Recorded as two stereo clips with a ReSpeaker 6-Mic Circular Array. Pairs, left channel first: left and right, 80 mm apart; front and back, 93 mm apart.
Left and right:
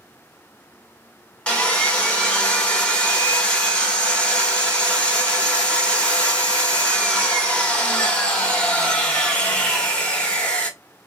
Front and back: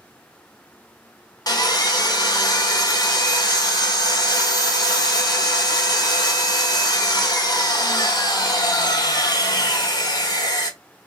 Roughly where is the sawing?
Ahead.